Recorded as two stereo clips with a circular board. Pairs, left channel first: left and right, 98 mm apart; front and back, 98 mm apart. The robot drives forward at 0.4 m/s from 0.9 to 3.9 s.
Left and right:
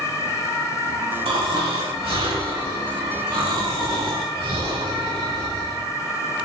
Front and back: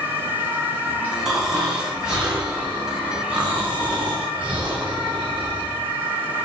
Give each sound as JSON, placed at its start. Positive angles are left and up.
{"t": 1.2, "sound": "snoring", "azimuth_deg": -95, "distance_m": 5.5}